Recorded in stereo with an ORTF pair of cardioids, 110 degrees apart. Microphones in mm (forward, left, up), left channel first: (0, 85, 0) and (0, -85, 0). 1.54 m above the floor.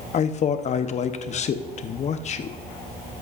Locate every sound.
0.1 s a man speaking: 45° left, 0.9 m